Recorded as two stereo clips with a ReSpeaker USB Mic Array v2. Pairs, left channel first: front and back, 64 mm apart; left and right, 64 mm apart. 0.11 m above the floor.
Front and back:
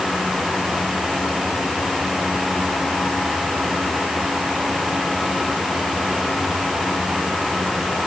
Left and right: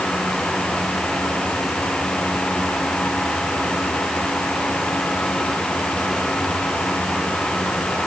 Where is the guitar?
No guitar in this recording.